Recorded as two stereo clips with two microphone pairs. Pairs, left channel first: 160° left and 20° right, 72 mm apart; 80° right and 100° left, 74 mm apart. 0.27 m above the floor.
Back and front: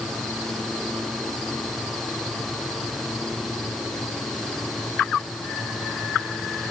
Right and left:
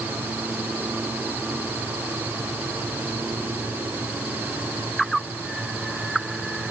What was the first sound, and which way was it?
Only background noise.